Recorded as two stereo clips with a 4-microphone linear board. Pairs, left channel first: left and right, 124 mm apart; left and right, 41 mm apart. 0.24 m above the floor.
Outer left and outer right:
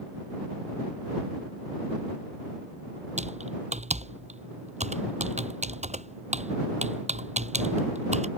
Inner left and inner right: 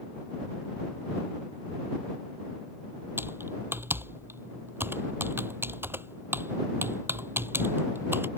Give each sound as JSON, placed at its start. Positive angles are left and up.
{"t": 3.2, "sound": "typing on a keyboard", "side_deg": -75}